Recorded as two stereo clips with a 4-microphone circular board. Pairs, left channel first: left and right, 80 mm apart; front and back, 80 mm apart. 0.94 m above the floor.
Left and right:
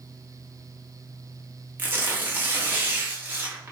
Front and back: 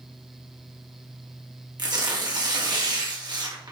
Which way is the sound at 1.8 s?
155° right.